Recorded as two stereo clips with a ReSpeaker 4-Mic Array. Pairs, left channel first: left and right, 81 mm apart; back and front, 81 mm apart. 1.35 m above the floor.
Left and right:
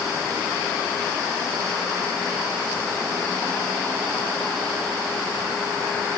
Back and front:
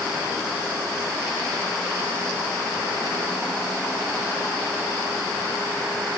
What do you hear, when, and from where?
Only background noise.